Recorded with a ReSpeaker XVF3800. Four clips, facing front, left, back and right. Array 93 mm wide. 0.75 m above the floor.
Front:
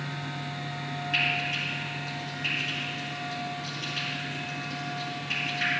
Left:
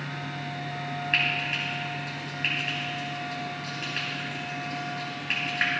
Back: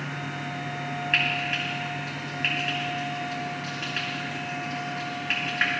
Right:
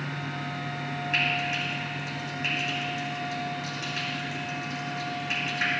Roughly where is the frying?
Behind left.